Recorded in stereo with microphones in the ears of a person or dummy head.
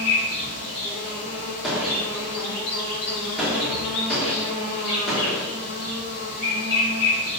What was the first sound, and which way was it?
An insect, 55° left (ahead or behind).